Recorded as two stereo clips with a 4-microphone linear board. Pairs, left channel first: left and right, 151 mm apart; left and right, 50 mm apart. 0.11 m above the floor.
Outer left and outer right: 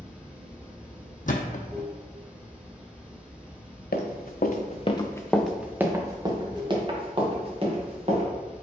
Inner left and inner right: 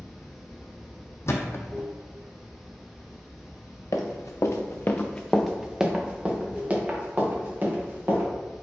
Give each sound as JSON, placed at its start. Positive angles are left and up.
{"t": 0.0, "sound": "running water", "side_deg": -10, "distance_m": 1.0}
{"t": 1.3, "sound": "a thud", "side_deg": 60, "distance_m": 0.6}
{"t": 3.9, "sound": "running footsteps", "side_deg": 80, "distance_m": 0.9}